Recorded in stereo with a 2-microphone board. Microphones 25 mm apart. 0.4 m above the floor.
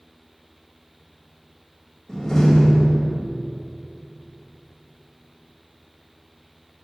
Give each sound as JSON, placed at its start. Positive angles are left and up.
{"t": 2.1, "sound": "a door slam", "side_deg": 20, "distance_m": 1.7}